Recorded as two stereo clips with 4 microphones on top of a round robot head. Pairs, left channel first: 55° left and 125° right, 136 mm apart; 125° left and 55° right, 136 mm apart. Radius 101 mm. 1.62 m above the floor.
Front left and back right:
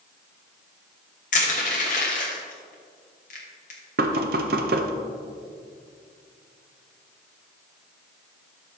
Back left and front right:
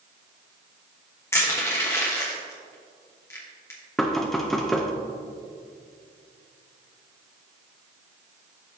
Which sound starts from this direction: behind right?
Knocking, at 4.0 s.